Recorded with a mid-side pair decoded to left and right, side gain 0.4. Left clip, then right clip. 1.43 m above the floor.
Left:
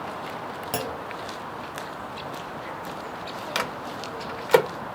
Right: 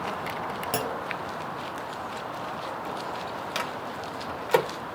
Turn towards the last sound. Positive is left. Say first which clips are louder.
# left 5 dB
turn(degrees=40)